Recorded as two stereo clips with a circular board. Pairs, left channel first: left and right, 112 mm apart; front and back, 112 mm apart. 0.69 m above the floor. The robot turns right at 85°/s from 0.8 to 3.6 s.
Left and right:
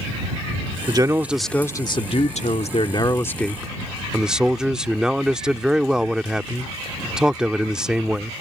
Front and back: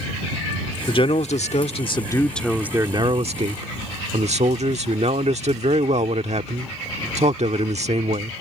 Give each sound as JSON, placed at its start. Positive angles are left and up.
{"t": 0.9, "sound": "a man speaking", "azimuth_deg": -45}